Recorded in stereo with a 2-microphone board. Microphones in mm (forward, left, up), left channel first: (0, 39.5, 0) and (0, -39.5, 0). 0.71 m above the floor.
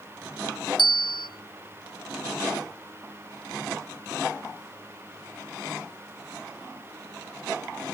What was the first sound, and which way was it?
A bell, 75° left (ahead or behind).